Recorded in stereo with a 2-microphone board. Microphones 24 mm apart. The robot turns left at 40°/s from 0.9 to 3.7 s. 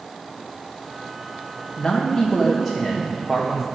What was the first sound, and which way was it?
A man speaking, 25° left.